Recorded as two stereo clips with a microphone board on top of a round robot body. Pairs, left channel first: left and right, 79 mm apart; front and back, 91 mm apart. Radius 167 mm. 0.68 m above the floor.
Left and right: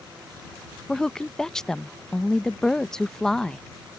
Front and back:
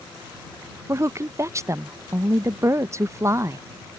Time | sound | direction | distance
0.9 | a woman speaking | 165° left | ?